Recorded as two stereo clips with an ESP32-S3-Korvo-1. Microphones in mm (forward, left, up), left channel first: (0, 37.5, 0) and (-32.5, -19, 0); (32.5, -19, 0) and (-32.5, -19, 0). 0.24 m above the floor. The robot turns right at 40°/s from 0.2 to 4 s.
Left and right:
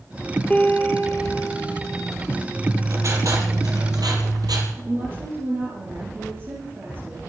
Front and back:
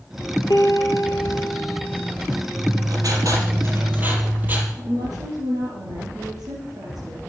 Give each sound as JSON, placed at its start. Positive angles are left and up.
{"t": 0.5, "sound": "a piano", "azimuth_deg": -10, "distance_m": 1.3}
{"t": 2.6, "sound": "writing", "azimuth_deg": -175, "distance_m": 4.5}
{"t": 4.8, "sound": "a woman speaking", "azimuth_deg": -175, "distance_m": 5.0}